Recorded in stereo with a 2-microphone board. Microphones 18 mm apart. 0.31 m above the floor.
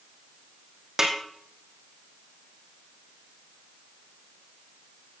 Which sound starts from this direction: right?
A snare drum, at 1.0 s.